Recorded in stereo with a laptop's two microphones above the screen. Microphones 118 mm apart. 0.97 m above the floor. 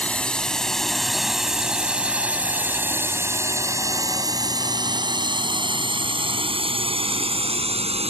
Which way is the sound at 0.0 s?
10° left (ahead or behind).